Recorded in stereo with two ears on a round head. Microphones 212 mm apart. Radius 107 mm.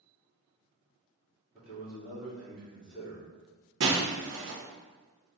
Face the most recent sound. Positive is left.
turn(degrees=-50)  # may be behind; listen again after turning